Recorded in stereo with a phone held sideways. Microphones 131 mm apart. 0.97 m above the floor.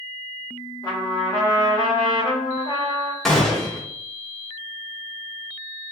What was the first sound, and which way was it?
A trumpet, 35° left (ahead or behind).